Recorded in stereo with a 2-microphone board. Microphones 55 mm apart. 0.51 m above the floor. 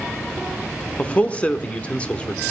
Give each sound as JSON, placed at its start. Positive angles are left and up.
{"t": 1.0, "sound": "a man speaking", "side_deg": 20, "distance_m": 1.0}